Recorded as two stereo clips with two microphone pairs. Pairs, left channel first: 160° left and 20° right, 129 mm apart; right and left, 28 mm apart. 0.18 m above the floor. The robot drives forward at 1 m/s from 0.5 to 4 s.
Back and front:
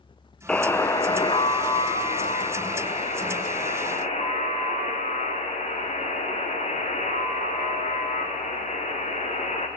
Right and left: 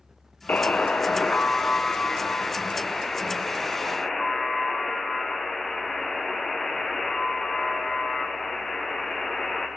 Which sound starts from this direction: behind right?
A buzzer, at 0.5 s.